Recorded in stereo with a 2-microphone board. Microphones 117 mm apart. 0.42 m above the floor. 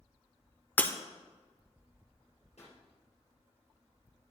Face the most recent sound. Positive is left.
turn(degrees=65)  # may be behind; listen again after turning